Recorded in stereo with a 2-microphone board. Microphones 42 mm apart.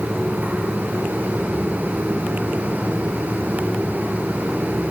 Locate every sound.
Only background noise.